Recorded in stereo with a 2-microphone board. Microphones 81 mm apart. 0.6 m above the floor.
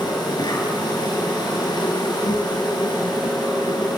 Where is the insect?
60° left (ahead or behind), 5 m.